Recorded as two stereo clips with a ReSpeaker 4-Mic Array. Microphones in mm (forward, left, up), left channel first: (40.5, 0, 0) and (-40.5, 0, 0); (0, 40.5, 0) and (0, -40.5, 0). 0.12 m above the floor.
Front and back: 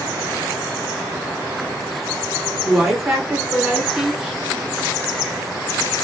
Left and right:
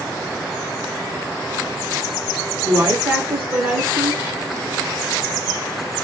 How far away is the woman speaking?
About 1.3 m.